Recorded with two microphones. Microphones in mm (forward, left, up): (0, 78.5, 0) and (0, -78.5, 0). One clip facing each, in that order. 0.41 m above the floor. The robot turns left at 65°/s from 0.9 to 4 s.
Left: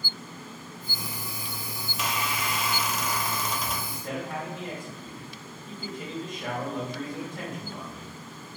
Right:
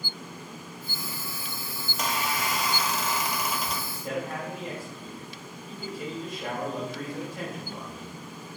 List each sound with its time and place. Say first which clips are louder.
1.9 s a squeak: right 1 dB; 60° right, 0.5 m; by 3.8 s 175° left, 0.5 m
3.9 s a man speaking: right 2 dB; centre (ahead or behind), 1.0 m; by 8.1 s 5° right (ahead or behind), 1.0 m